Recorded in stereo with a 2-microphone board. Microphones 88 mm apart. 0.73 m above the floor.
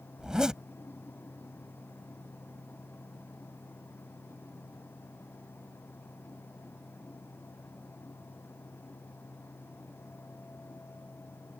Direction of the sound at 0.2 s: 5° right (ahead or behind).